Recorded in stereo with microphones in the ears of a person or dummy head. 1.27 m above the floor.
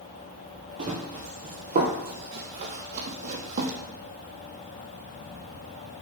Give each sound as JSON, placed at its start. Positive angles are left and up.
{"t": 0.8, "sound": "running footsteps", "side_deg": -25, "distance_m": 1.9}